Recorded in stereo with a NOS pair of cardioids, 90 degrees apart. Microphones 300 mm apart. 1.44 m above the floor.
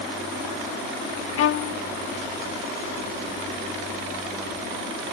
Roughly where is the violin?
Ahead left.